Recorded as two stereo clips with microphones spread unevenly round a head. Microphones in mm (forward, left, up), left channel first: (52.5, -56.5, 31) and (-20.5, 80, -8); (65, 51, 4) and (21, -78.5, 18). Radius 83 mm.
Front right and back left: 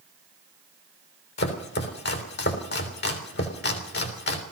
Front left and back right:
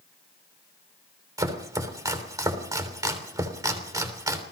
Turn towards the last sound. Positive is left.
turn(degrees=-45)